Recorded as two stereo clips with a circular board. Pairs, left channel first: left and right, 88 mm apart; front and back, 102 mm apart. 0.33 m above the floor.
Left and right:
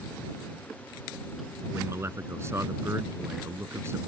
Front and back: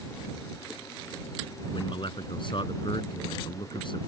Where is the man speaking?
35° right.